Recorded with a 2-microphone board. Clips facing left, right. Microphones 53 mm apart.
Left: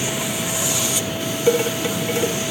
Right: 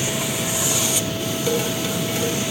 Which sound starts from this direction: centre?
Dishes clattering, at 1.5 s.